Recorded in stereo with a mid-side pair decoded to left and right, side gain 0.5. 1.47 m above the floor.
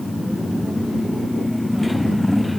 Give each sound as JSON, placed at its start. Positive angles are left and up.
{"t": 0.0, "sound": "a motorcycle", "azimuth_deg": 10}